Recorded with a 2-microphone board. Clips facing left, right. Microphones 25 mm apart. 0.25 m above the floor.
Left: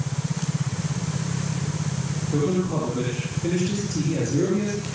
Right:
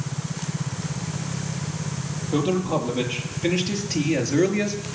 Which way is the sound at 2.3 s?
40° right (ahead or behind).